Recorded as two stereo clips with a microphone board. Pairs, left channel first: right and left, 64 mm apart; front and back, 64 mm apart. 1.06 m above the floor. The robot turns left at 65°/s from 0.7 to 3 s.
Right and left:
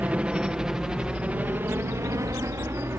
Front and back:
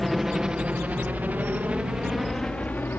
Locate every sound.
0.0 s a helicopter: 90° left; by 3.0 s 45° left